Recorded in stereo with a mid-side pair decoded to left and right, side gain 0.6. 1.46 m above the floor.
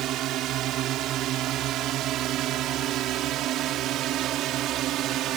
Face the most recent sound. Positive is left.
turn(degrees=-60)